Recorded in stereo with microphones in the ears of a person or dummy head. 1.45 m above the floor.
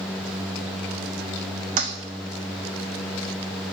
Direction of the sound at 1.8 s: 40° right (ahead or behind).